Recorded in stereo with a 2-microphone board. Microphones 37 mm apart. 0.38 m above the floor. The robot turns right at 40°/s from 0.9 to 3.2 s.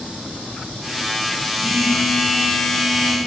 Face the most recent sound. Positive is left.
turn(degrees=30)